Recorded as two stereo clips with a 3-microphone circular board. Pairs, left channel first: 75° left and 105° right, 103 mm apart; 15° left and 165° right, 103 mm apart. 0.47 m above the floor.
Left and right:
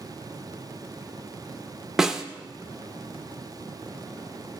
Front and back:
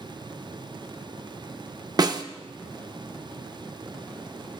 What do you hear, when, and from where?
2.0 s a snare drum: 170° left, 0.5 m